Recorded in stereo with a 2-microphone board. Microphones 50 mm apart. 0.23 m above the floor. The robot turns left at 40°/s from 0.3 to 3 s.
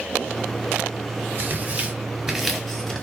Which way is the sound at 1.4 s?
45° right (ahead or behind).